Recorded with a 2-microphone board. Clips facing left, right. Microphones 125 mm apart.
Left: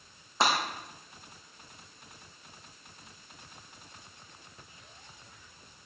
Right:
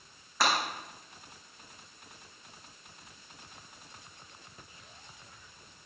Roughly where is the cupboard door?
I don't hear a cupboard door.